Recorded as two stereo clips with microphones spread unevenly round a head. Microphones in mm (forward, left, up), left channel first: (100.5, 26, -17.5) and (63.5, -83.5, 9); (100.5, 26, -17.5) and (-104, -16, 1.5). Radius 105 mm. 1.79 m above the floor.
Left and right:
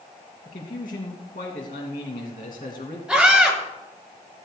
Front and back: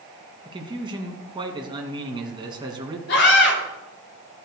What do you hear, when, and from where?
0.5 s a man speaking: 120° left, 2.5 m
3.1 s a scream: 25° right, 6.5 m